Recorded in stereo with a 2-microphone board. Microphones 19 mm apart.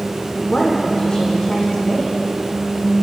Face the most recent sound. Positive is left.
turn(degrees=50)  # may be behind; listen again after turning